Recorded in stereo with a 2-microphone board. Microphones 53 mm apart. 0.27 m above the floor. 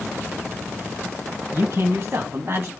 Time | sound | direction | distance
1.5 | a man speaking | 50° right (ahead or behind) | 2.5 m